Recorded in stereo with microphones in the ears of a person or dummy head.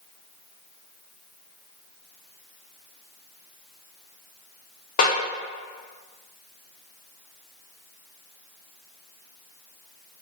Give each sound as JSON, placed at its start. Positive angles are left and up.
{"t": 5.0, "sound": "a snare drum", "side_deg": 40, "distance_m": 1.2}